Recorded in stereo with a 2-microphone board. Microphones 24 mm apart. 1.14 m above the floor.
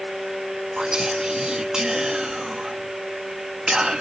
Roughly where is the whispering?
Right.